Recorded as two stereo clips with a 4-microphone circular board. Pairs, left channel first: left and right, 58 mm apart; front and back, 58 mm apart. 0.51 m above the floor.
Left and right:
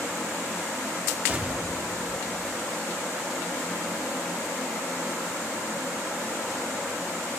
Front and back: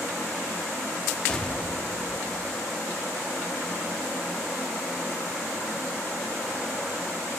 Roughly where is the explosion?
Ahead right.